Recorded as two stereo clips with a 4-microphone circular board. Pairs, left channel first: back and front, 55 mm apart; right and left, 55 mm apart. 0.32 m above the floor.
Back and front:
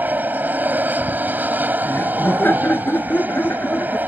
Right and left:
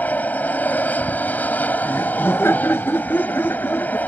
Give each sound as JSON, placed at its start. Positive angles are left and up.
{"t": 0.0, "sound": "an aircraft", "azimuth_deg": -45}
{"t": 1.9, "sound": "laughter", "azimuth_deg": -130}